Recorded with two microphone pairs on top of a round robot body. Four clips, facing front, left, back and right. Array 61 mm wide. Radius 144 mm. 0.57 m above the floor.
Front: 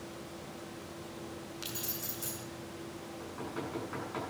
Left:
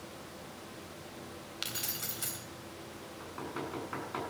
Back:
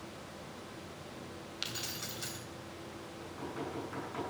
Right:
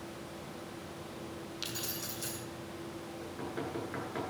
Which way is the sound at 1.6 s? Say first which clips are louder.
Left 2 dB, even; 115° left.